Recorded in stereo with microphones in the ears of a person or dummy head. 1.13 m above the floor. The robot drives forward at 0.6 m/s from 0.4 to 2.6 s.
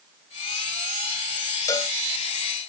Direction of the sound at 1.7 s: 15° left (ahead or behind).